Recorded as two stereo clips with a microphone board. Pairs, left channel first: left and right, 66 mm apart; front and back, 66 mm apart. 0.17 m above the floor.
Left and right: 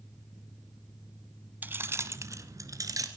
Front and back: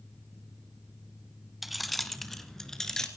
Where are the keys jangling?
95° right, 0.9 m; by 3.1 s 80° right, 1.8 m.